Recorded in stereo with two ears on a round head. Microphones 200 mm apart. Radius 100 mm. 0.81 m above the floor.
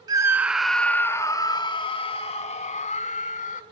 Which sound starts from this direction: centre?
A scream, at 0.1 s.